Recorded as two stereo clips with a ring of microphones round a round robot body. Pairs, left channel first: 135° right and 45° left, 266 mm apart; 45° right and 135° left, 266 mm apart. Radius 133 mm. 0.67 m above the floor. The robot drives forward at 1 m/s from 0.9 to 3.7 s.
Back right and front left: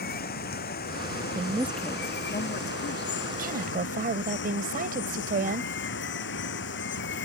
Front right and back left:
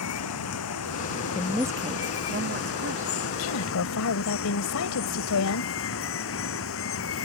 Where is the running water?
80° right; by 7.2 s 85° right.